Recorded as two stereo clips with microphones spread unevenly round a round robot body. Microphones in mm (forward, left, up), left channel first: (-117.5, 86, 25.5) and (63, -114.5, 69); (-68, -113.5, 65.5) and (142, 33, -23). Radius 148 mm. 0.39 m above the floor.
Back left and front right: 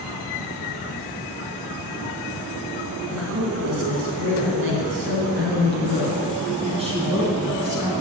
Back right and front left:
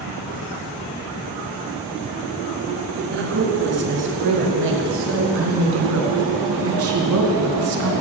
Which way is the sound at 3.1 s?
10° right.